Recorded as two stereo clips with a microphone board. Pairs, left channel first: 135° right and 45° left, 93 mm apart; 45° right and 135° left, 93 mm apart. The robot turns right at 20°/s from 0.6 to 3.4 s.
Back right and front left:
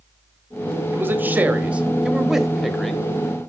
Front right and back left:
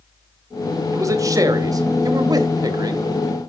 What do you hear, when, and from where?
0.9 s a man speaking: 100° left, 1.1 m; by 3.4 s 150° left, 1.1 m